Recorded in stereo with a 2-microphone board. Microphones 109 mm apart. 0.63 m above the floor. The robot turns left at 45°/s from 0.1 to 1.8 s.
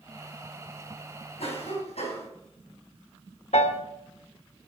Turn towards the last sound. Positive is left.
turn(degrees=75)  # may be behind; listen again after turning